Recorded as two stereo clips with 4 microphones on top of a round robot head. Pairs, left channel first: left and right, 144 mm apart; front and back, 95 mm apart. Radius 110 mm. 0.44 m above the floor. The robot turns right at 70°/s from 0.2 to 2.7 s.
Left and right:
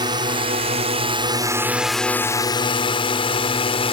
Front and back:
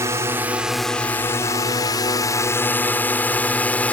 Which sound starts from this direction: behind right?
A drone, at 0.0 s.